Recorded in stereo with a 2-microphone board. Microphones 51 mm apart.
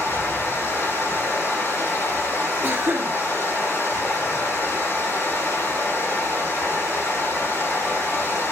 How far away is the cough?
About 0.6 m.